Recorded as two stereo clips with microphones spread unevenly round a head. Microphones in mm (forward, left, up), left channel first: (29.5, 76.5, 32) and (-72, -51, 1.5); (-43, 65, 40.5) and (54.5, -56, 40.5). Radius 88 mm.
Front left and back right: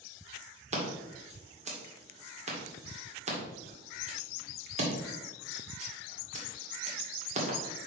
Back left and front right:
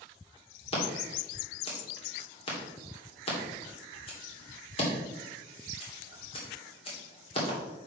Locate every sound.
0.7 s scissors: 175° right, 2.5 m